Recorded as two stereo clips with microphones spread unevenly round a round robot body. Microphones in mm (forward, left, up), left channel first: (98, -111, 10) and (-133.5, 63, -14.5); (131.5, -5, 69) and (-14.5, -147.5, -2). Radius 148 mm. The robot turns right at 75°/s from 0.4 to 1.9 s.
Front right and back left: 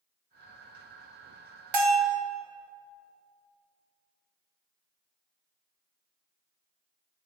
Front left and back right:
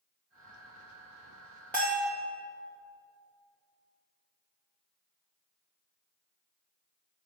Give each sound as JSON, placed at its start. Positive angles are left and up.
{"t": 1.7, "sound": "a bell", "azimuth_deg": 125, "distance_m": 1.0}